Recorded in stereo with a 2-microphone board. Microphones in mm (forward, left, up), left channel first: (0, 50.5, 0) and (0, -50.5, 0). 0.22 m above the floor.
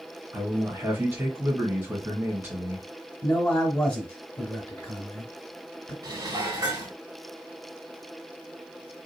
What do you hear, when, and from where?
0.3 s a man speaking: 25° right (ahead or behind), 1.7 m
3.2 s a man speaking: 15° left (ahead or behind), 1.0 m
6.0 s dishes clattering: 45° right (ahead or behind), 0.9 m